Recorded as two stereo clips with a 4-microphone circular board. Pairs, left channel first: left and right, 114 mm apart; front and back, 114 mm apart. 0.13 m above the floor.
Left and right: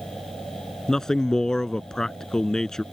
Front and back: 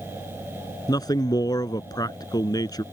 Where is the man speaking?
10° left.